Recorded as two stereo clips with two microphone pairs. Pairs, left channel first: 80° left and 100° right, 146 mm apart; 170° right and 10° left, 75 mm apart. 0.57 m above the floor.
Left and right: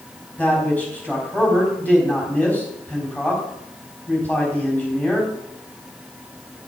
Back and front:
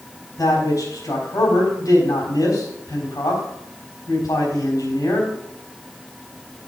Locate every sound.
0.4 s a man speaking: 155° left, 3.5 m